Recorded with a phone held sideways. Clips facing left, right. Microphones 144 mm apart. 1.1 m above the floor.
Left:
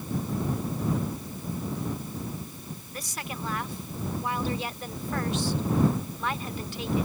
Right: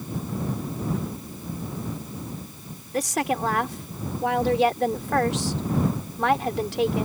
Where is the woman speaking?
75° right (ahead or behind).